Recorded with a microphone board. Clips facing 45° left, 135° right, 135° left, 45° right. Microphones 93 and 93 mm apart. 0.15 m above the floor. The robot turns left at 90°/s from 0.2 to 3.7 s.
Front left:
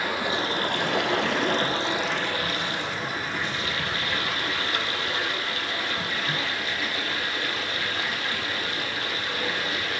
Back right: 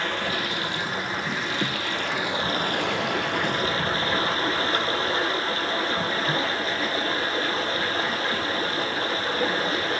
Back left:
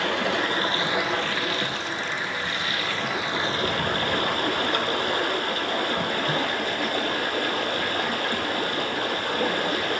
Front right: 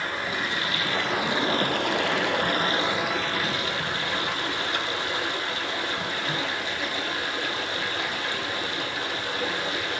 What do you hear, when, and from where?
0.0 s running water: 125° left, 1.1 m; by 10.0 s 170° left, 1.1 m